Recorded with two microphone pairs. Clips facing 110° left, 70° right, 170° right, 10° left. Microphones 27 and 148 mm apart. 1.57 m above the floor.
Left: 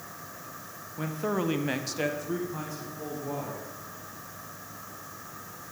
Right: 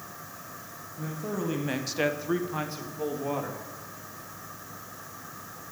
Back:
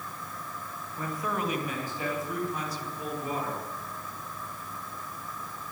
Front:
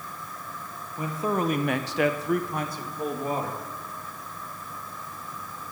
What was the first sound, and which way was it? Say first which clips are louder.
A man speaking: left 3 dB, front 5 dB; 85° left.